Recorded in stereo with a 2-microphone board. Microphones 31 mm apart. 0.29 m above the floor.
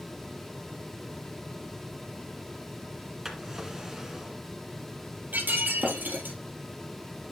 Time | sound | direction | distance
3.2 | a drawer | 15° right (ahead or behind) | 1.8 m
5.3 | breaking glass | 85° right | 3 m